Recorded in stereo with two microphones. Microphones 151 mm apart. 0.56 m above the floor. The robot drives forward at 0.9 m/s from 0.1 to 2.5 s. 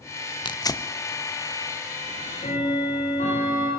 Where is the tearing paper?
30° left (ahead or behind), 0.6 m; by 0.9 s 20° left (ahead or behind), 1.0 m.